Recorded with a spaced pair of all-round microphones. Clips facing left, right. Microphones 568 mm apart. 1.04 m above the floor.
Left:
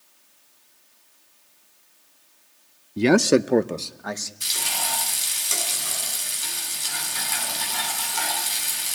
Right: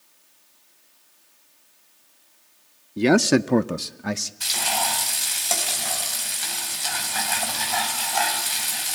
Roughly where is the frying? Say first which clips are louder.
Right 7 dB; right.